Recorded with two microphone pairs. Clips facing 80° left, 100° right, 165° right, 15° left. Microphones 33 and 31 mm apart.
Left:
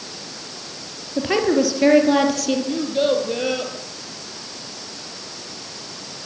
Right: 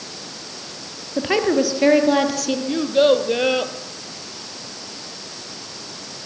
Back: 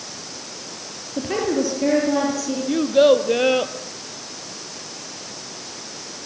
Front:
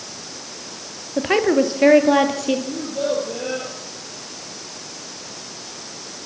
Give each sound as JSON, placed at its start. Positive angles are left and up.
{"t": 1.2, "sound": "a woman speaking", "azimuth_deg": -20, "distance_m": 2.5}
{"t": 2.7, "sound": "a child speaking", "azimuth_deg": -155, "distance_m": 2.0}